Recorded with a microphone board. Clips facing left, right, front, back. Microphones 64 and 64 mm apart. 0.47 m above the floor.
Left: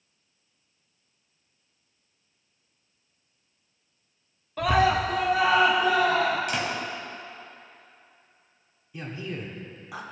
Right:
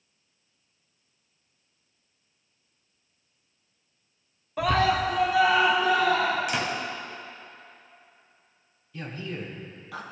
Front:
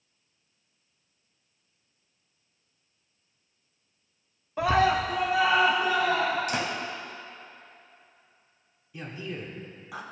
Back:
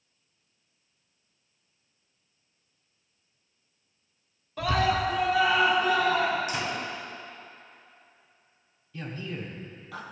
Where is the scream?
25° right, 0.7 m; by 6.4 s 70° left, 3 m.